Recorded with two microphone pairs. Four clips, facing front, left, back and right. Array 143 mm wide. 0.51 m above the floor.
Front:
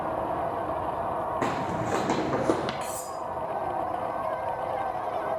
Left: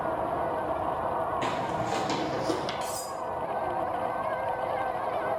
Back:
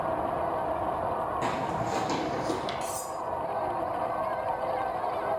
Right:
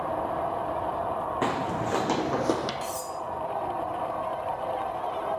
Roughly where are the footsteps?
Ahead right.